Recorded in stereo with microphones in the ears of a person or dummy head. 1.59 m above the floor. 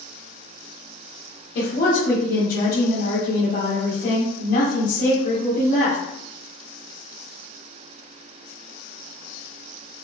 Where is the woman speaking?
55° left (ahead or behind), 1.5 m.